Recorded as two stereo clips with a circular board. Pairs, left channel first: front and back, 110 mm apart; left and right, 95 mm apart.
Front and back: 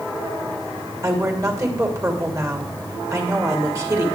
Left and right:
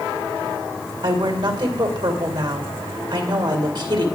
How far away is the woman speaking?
About 2.5 m.